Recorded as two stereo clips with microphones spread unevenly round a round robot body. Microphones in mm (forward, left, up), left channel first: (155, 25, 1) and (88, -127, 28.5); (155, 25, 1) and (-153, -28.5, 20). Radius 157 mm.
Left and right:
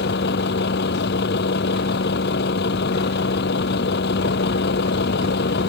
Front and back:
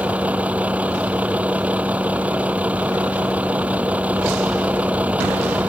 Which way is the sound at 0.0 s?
105° left.